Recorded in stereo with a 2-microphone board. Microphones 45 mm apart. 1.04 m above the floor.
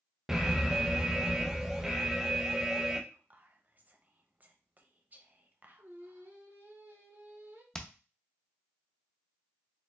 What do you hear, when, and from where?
0.3 s an alarm: 10° right (ahead or behind), 0.6 m
3.1 s whispering: 40° right (ahead or behind), 0.7 m
5.8 s singing: 60° right (ahead or behind), 1.4 m
7.7 s hammering: 15° left (ahead or behind), 0.6 m